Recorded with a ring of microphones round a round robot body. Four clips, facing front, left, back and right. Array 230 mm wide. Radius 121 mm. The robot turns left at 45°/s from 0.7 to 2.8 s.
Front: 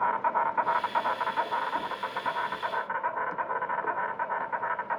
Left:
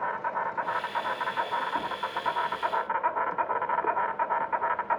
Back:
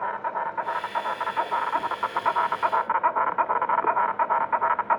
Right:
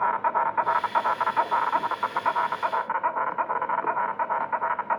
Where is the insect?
70° right, 1.0 m; by 5.0 s 165° right, 1.0 m.